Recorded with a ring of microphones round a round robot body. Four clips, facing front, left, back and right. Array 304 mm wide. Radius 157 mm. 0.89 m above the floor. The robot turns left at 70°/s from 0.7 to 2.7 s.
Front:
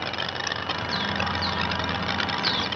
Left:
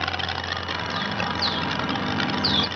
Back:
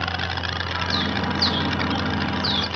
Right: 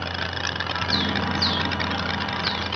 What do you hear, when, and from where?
0.9 s a bird: 125° right, 0.6 m; by 2.7 s 110° left, 0.6 m